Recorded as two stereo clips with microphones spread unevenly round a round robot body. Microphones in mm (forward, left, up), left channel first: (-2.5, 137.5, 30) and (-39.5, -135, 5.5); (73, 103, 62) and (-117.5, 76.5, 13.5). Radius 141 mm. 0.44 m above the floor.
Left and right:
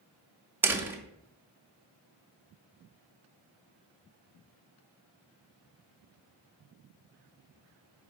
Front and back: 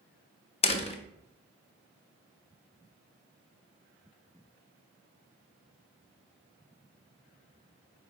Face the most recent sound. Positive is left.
turn(degrees=-40)